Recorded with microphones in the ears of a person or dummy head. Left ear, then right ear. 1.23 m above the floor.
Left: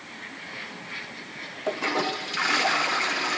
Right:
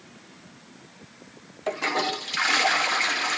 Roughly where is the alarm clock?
No alarm clock in this recording.